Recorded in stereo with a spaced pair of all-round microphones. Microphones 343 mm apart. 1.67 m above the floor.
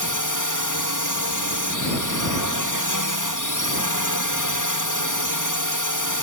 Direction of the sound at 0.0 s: 60° left (ahead or behind).